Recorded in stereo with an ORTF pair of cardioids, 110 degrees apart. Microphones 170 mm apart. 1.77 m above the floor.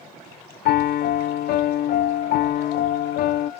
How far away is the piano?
About 0.6 m.